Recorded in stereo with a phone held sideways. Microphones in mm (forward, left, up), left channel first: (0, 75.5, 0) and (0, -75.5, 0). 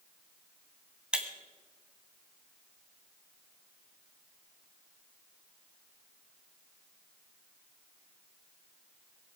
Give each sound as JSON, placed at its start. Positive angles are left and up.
{"t": 1.1, "sound": "breaking glass", "side_deg": -5, "distance_m": 1.7}